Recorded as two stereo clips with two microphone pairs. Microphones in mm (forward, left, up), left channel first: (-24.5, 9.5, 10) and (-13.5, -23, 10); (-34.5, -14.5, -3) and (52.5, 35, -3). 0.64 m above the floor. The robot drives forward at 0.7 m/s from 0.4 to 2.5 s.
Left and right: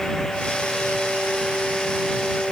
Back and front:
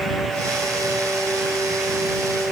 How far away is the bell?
No bell in this recording.